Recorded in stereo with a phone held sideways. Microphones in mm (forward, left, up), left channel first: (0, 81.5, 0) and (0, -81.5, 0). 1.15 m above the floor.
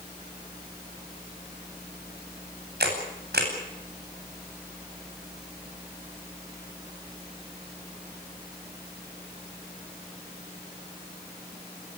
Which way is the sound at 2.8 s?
75° right (ahead or behind).